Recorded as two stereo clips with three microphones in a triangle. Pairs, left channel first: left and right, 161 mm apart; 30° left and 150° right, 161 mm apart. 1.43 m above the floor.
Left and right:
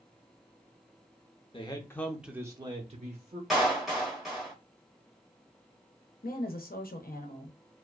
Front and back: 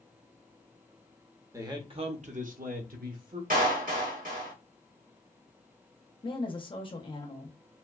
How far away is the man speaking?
About 0.7 m.